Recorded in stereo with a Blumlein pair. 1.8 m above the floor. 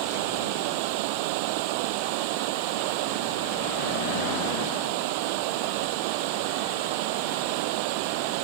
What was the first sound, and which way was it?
Running water, 45° right.